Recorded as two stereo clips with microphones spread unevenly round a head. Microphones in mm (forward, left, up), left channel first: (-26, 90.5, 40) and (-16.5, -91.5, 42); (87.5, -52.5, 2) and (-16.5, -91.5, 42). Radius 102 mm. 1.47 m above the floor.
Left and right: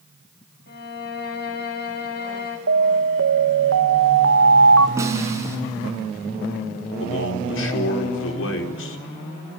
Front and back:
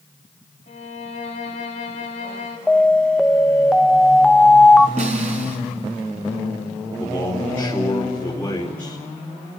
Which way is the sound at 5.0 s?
160° right.